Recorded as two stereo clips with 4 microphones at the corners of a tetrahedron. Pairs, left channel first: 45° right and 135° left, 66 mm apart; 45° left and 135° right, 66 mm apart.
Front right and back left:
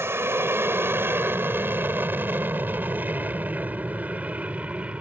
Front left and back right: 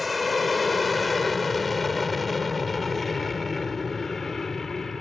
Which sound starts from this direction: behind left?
An aircraft, at 0.0 s.